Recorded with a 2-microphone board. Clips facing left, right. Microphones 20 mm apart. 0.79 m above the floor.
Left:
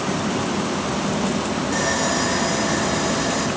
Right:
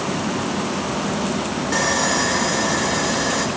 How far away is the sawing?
About 3 m.